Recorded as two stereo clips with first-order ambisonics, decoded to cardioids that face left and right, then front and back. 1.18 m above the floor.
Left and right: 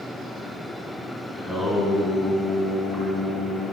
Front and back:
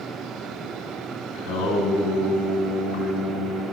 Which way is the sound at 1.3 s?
5° left.